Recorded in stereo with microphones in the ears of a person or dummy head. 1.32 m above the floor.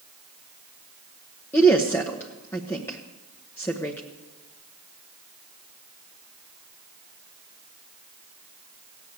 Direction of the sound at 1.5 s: 15° left (ahead or behind).